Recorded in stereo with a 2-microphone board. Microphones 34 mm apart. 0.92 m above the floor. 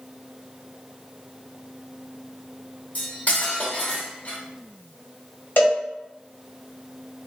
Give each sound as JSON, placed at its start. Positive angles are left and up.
{"t": 3.0, "sound": "cutlery clinking", "side_deg": 50, "distance_m": 0.9}
{"t": 5.6, "sound": "a cowbell", "side_deg": 75, "distance_m": 1.2}